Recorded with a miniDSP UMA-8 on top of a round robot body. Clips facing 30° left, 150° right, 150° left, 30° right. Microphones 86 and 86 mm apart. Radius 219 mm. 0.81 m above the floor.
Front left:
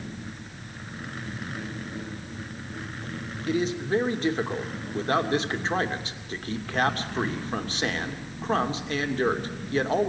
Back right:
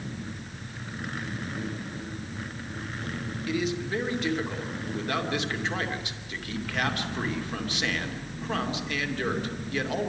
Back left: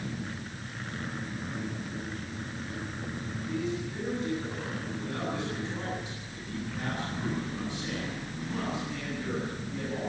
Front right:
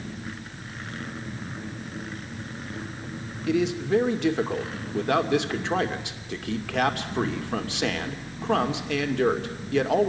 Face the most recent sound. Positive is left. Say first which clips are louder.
# front left 4 dB, front right 11 dB
turn(degrees=-25)